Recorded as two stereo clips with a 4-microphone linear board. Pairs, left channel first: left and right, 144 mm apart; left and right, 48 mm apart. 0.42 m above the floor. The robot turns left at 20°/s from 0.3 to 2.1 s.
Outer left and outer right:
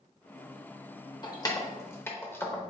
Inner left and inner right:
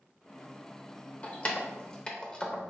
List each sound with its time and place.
1.2 s keys jangling: 30° left (ahead or behind), 0.6 m; by 2.7 s 15° left (ahead or behind), 0.6 m